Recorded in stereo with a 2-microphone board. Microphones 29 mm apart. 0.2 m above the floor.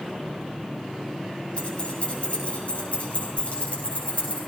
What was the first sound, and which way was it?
Keys jangling, 40° left (ahead or behind).